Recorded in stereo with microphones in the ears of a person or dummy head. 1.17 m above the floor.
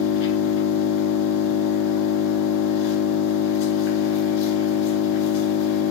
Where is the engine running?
55° left (ahead or behind), 1.7 m.